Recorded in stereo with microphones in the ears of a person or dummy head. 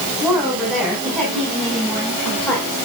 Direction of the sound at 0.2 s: 5° right (ahead or behind).